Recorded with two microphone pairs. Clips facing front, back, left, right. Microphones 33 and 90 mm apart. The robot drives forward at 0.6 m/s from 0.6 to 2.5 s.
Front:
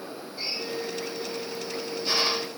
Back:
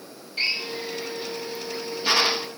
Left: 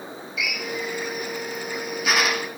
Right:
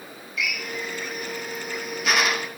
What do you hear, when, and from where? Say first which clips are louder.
0.4 s a drill: back 6 dB, left 1 dB; 175° left, 0.9 m; by 2.5 s straight behind, 1.9 m